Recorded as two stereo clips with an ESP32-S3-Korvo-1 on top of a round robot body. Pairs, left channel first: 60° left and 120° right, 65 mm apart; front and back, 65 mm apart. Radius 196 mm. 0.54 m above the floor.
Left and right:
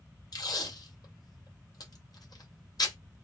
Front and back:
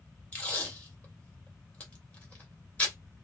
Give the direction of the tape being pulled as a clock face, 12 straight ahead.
10 o'clock.